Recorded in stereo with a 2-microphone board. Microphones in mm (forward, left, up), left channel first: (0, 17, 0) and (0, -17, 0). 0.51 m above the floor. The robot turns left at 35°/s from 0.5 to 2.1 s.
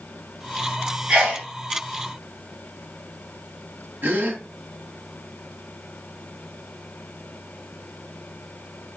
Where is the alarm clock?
No alarm clock in this recording.